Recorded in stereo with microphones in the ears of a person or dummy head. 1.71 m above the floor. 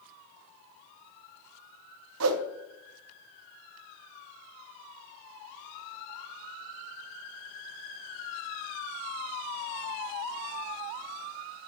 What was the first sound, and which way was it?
A whoosh, 85° right.